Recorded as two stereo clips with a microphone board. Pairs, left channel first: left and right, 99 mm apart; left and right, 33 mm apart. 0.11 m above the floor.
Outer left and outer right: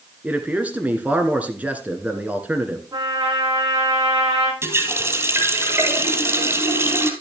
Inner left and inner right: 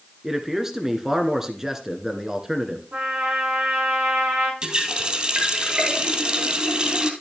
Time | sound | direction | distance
0.2 | a man speaking | 15° right (ahead or behind) | 1.4 m
2.9 | a trumpet | 40° right (ahead or behind) | 8 m
4.6 | a running tap | 25° right (ahead or behind) | 1.9 m